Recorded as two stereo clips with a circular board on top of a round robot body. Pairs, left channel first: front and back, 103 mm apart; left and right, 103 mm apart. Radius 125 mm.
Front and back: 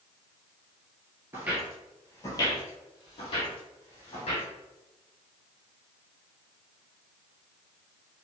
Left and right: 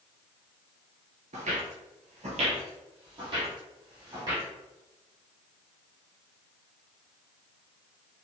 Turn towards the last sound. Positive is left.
turn(degrees=-35)